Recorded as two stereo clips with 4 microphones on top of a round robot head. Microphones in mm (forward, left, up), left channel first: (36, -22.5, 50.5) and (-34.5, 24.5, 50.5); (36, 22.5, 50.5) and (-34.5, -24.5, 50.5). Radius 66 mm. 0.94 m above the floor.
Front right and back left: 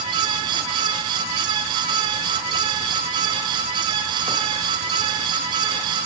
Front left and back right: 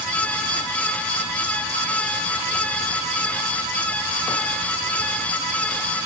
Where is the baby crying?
I don't hear a baby crying.